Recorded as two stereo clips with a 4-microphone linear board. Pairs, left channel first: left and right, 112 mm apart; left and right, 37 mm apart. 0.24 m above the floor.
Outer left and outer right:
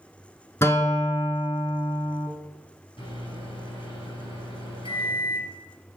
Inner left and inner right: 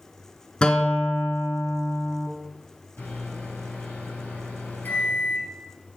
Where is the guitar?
25° left (ahead or behind), 0.8 m.